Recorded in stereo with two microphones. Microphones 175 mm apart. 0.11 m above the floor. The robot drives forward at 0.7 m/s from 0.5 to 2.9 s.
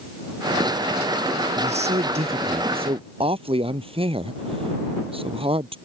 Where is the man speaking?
40° right (ahead or behind); by 5.8 s 30° right (ahead or behind).